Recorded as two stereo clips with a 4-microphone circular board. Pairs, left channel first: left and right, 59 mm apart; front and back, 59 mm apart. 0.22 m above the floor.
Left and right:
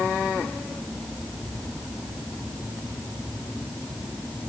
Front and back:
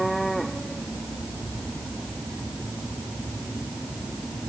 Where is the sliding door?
I don't hear a sliding door.